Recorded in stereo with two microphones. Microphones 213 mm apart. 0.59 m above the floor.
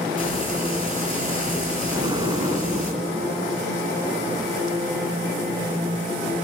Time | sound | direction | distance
0.2 | frying | 25° left (ahead or behind) | 6.5 m
1.9 | an explosion | 20° right (ahead or behind) | 1.1 m